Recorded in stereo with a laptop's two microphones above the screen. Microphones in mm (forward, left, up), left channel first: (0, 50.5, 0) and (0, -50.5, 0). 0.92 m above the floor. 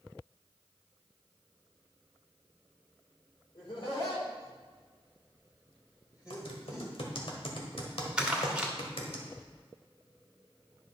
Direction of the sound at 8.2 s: 10° right (ahead or behind).